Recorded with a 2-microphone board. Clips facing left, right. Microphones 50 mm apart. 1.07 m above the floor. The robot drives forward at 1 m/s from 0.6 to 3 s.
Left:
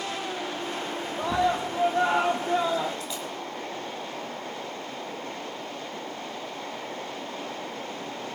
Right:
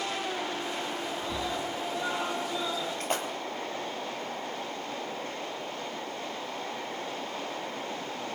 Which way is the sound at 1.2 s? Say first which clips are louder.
Left 13 dB; 65° left (ahead or behind).